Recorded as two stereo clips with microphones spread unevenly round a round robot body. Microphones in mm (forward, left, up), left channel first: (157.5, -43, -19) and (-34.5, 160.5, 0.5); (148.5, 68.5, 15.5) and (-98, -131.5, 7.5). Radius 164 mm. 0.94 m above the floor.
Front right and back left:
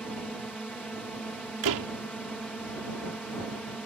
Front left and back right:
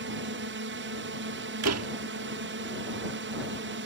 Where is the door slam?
170° left.